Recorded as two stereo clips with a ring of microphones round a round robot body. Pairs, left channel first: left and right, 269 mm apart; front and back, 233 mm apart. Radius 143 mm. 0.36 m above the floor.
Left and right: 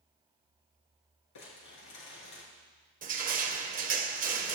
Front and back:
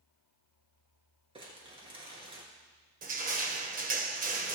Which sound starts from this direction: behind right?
Crushing, at 3.0 s.